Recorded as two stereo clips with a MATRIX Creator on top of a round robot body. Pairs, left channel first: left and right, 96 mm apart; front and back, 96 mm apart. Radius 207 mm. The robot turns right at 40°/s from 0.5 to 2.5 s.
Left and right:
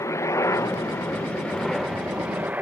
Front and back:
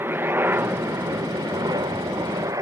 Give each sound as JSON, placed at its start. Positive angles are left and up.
{"t": 0.0, "sound": "a helicopter", "azimuth_deg": 125}